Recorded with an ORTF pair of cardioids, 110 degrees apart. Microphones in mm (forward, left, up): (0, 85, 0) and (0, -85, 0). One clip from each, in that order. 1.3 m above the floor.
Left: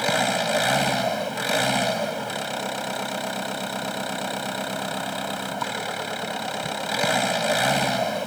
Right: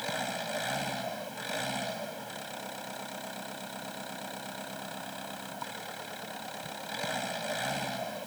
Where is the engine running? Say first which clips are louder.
Left 12 dB; 65° left.